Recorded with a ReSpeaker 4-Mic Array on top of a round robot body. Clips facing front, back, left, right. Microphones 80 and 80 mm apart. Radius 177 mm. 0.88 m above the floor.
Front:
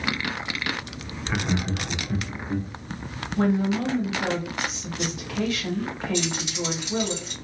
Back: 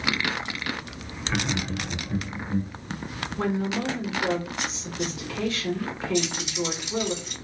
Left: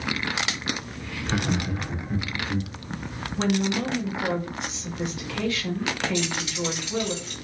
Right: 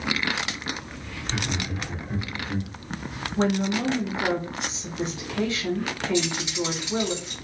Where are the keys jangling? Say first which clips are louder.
Back 3 dB, right 2 dB; 20° right, 1.6 m.